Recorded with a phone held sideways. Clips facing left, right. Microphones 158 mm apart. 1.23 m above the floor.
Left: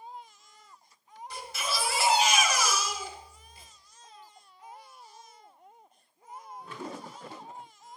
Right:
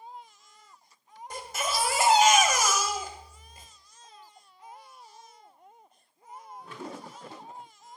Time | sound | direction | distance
1.3 | a baby crying | 50° right (ahead or behind) | 1.1 m